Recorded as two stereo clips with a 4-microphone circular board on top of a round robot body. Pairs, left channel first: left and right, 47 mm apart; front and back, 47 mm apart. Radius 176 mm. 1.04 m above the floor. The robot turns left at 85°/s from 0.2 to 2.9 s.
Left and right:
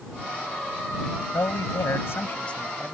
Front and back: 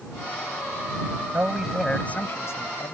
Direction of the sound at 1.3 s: 125° left.